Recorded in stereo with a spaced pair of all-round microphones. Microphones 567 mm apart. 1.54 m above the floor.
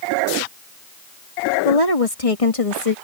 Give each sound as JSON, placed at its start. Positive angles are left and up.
{"t": 1.6, "sound": "a woman speaking", "side_deg": 80}